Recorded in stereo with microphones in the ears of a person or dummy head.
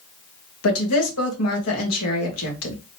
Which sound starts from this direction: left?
A woman speaking, at 0.6 s.